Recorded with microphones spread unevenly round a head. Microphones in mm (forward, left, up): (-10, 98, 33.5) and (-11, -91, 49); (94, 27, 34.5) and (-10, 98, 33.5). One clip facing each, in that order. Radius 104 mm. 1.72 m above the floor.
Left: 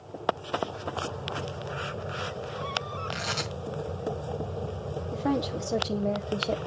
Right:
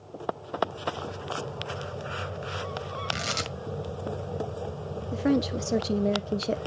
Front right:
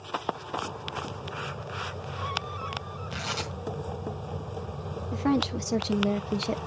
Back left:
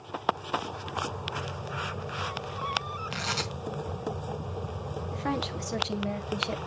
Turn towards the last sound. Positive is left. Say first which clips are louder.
# right 4 dB, front right 7 dB
turn(degrees=-45)